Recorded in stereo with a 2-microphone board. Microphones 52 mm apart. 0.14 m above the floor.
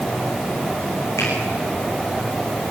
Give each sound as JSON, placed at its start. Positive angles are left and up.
{"t": 1.2, "sound": "a finger snap", "side_deg": 80, "distance_m": 8.0}